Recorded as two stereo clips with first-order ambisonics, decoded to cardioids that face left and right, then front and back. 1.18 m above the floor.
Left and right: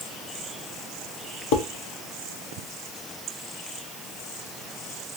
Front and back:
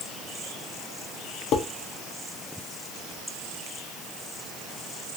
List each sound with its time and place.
1.5 s dishes clattering: 55° left, 0.7 m